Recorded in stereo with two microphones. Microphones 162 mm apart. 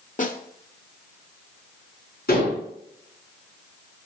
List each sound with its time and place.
0.2 s a snare drum: 50° left (ahead or behind), 1.1 m
2.3 s dishes clattering: 65° left (ahead or behind), 4.5 m